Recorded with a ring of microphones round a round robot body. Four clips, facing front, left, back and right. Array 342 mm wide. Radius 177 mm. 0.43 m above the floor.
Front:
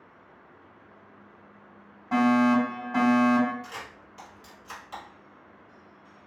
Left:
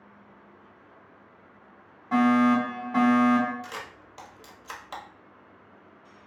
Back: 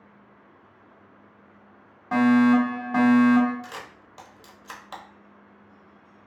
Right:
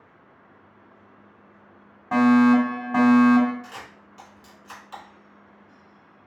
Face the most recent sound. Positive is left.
turn(degrees=135)